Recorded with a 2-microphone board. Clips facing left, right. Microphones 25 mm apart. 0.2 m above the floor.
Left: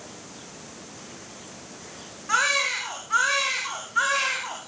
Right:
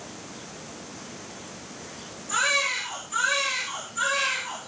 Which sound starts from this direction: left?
A baby crying, at 2.3 s.